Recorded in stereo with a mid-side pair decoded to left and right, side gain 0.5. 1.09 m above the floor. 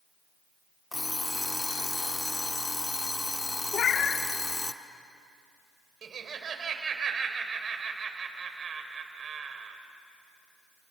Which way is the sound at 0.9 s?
15° left.